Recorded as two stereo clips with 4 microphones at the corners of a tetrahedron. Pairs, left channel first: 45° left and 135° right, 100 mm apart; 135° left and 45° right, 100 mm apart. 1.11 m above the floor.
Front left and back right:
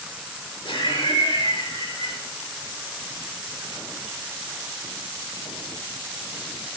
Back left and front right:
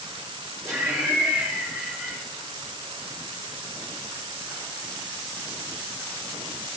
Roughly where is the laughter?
Ahead left.